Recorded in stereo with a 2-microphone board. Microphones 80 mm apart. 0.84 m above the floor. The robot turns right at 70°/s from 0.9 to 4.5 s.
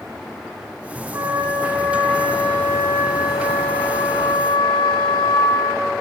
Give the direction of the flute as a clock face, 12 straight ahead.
5 o'clock.